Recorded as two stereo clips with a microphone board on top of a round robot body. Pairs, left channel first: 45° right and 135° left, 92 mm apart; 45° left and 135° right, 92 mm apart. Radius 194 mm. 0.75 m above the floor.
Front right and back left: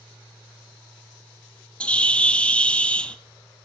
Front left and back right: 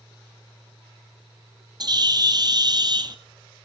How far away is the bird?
About 1.0 m.